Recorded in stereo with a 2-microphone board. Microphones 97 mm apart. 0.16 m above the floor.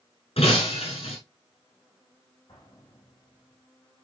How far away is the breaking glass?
About 4.5 m.